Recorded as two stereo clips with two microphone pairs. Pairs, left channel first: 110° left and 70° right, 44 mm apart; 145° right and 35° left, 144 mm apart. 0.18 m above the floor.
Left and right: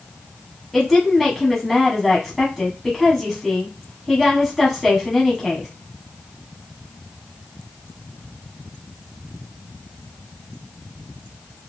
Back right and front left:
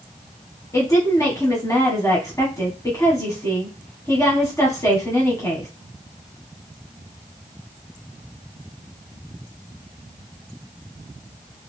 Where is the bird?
No bird in this recording.